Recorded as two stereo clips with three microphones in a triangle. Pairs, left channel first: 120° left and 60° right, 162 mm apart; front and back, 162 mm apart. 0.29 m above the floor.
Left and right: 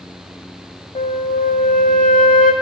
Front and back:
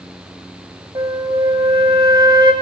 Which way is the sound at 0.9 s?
125° left.